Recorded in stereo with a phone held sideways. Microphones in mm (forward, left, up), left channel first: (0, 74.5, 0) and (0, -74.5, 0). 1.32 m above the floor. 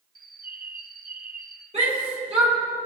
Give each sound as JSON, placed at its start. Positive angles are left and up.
{"t": 0.1, "sound": "a bird", "side_deg": -75, "distance_m": 0.6}
{"t": 1.7, "sound": "a shout", "side_deg": -45, "distance_m": 4.0}